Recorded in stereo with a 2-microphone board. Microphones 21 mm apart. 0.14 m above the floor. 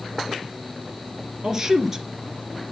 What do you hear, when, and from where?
1.4 s a man speaking: 25° right (ahead or behind), 2.5 m